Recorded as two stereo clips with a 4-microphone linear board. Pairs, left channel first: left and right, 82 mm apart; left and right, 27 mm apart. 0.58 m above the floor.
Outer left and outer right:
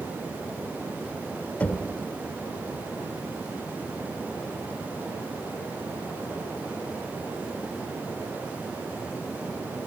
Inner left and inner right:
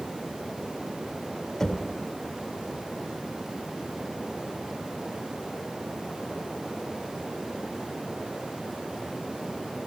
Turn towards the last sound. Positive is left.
turn(degrees=20)  # may be behind; listen again after turning